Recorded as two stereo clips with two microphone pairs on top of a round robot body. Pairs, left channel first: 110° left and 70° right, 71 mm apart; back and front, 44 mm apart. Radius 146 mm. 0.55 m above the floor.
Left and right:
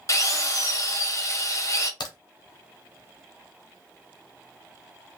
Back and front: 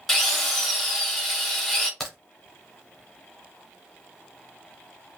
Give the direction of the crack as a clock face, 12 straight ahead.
9 o'clock.